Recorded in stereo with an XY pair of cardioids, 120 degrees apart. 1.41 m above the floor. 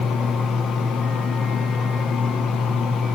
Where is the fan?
65° left, 0.8 m.